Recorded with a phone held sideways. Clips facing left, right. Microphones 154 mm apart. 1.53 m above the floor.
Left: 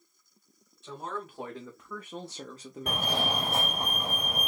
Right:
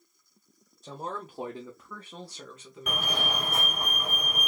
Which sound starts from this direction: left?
A fire alarm, at 2.9 s.